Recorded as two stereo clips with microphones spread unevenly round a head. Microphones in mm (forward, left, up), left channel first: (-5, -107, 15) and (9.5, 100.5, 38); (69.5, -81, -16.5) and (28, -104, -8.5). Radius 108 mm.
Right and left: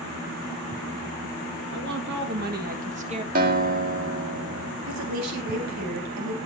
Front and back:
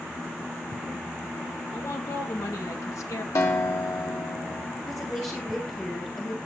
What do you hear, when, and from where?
1.7 s a woman speaking: 55° left, 2.5 m; by 3.2 s 25° left, 1.5 m
3.4 s a guitar: 45° left, 2.0 m
4.9 s a woman speaking: 95° left, 4 m